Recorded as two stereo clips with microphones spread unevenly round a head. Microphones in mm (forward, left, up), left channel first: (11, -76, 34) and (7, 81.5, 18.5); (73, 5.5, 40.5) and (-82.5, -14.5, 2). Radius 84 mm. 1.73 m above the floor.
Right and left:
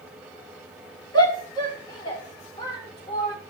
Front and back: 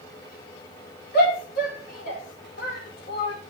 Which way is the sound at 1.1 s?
25° right.